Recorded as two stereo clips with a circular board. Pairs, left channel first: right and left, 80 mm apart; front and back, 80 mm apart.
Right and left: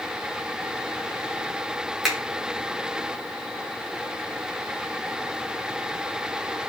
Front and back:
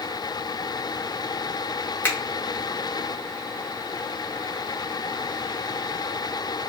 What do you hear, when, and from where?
2.0 s a finger snap: 10° left, 0.8 m